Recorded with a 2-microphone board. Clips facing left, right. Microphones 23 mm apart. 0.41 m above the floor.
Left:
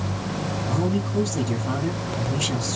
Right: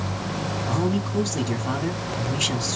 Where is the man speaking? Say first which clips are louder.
Even; 30° right (ahead or behind), 1.3 m.